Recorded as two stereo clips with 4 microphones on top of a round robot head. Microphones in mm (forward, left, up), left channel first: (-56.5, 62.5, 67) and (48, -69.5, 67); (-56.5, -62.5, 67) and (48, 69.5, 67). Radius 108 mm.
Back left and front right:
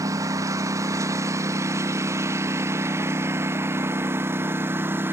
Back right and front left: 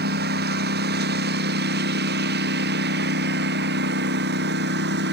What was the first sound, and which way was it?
A lawn mower, 20° left.